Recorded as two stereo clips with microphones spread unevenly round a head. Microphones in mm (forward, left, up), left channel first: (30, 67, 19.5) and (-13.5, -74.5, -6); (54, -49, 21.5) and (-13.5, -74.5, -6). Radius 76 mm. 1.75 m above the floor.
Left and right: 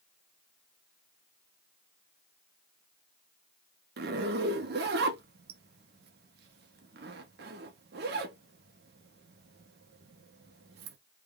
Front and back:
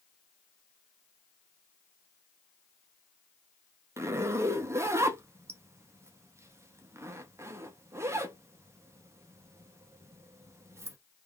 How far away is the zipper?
About 0.6 m.